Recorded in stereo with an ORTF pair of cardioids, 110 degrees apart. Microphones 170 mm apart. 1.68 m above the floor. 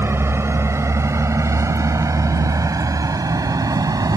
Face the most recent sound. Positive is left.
turn(degrees=-20)